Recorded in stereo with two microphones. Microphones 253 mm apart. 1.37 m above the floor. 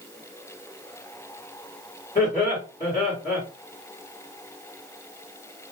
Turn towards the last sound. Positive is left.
turn(degrees=35)  # may be behind; listen again after turning